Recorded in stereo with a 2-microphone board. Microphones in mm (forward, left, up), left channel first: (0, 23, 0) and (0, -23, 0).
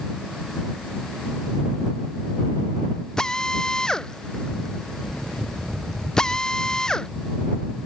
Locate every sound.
3.2 s a drill: 15° left (ahead or behind)